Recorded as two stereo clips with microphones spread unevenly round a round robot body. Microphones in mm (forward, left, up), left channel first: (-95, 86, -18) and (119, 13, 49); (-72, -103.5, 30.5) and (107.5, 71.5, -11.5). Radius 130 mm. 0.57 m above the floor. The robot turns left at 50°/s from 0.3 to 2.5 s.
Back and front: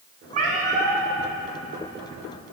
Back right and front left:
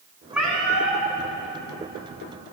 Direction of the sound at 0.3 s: 45° right.